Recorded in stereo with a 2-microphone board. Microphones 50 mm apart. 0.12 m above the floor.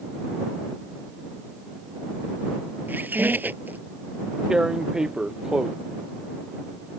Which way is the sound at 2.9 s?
40° right (ahead or behind).